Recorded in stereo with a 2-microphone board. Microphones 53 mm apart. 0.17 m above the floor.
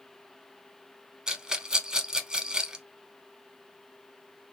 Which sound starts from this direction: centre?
A rattle, at 1.3 s.